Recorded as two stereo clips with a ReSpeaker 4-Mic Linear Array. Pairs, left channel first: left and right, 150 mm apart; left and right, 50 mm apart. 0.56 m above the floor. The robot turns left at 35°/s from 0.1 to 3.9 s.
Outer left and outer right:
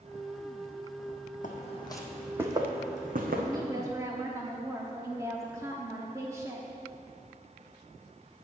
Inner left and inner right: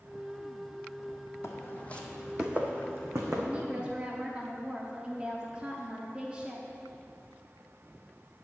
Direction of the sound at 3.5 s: 25° right (ahead or behind).